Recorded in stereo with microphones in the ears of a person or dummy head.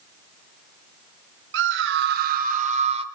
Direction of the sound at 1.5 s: 70° right (ahead or behind).